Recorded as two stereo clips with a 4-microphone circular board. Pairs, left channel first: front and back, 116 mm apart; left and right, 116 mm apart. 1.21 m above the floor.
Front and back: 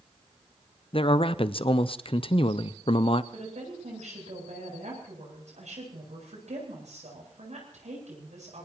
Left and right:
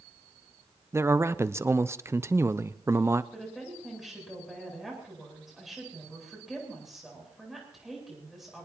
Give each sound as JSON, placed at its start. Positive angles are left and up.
{"t": 0.9, "sound": "a man speaking", "azimuth_deg": -25, "distance_m": 0.7}
{"t": 3.3, "sound": "a woman speaking", "azimuth_deg": 180, "distance_m": 9.0}